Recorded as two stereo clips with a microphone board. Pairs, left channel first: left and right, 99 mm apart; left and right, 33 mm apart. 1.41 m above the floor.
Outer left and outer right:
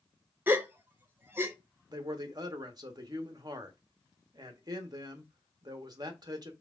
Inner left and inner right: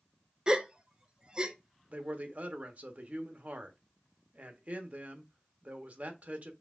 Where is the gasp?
20° right (ahead or behind), 0.6 m.